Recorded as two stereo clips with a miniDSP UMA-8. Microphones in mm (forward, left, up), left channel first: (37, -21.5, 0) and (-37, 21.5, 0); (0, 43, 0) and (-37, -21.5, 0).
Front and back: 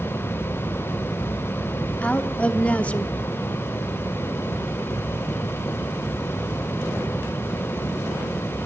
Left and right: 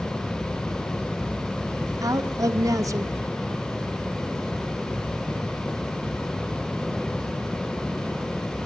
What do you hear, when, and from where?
2.0 s a woman speaking: 100° right, 1.4 m